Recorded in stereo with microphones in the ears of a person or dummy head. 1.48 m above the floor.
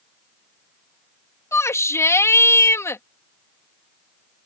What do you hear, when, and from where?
1.5 s a shout: 10° left (ahead or behind)